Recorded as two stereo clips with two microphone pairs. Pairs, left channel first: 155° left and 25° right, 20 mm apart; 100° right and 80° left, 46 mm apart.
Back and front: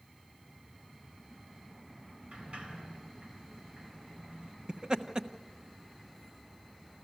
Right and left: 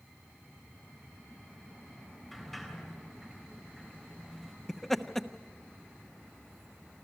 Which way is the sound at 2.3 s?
15° right.